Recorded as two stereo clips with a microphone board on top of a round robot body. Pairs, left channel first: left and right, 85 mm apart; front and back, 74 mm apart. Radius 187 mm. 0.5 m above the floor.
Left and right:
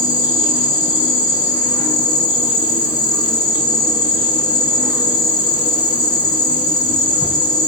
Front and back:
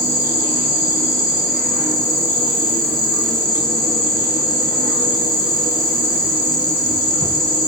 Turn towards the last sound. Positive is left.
turn(degrees=135)